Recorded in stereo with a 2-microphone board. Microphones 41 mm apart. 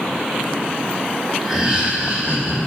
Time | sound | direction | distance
1.4 | laughter | 10° right (ahead or behind) | 1.2 m